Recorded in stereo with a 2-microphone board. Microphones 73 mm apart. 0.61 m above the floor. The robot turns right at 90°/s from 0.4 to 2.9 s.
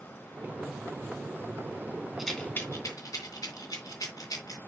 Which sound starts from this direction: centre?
A rattle, at 2.2 s.